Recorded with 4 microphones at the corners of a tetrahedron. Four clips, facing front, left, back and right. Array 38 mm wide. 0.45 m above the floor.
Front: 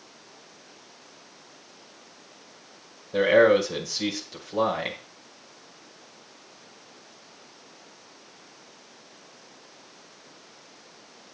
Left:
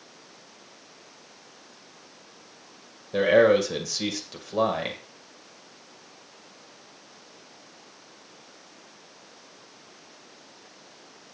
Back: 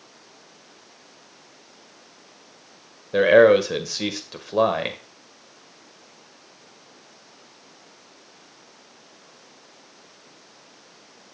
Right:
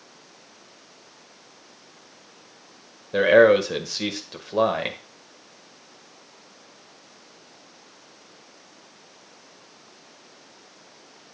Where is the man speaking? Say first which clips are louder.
Right 3 dB, back 4 dB; 150° right, 1.6 m.